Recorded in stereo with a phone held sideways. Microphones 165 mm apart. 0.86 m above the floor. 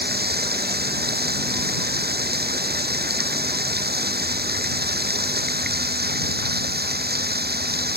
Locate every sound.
0.0 s running water: 80° right